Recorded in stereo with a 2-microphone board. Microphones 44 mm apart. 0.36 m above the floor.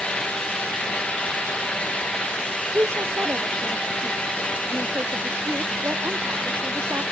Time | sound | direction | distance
2.7 | a woman speaking | 75° right (ahead or behind) | ?